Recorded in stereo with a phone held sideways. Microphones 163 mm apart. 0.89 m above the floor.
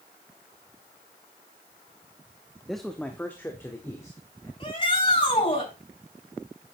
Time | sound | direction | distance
2.7 | a man speaking | centre (ahead or behind) | 1.0 m
4.6 | a shout | 30° left (ahead or behind) | 5.5 m